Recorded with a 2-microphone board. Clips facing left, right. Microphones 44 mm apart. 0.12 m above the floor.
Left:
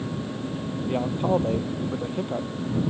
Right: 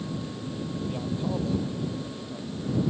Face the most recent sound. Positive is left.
turn(degrees=55)  # may be behind; listen again after turning